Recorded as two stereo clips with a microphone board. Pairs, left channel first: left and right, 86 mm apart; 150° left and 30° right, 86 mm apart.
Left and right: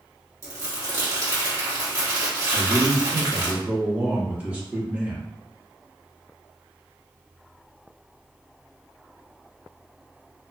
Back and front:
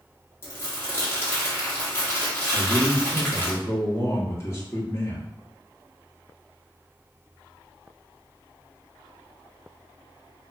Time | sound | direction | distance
0.4 | crumpling | 145° right | 1.1 m
2.5 | a man speaking | 160° right | 1.1 m